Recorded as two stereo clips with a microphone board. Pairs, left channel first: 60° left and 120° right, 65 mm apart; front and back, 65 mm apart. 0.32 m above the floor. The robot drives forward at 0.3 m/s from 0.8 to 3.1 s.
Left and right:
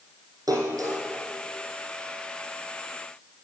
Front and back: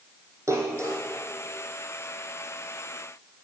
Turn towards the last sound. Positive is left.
turn(degrees=-155)